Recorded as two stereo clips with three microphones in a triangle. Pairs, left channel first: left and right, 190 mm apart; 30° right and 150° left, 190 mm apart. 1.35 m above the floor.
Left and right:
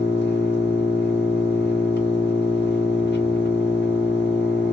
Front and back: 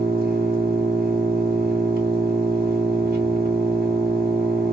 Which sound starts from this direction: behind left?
An engine running, at 0.0 s.